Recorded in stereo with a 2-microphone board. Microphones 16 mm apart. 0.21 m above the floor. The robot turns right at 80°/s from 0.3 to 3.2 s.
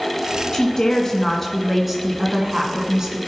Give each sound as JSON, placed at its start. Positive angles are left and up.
{"t": 0.5, "sound": "a woman speaking", "azimuth_deg": 95, "distance_m": 2.0}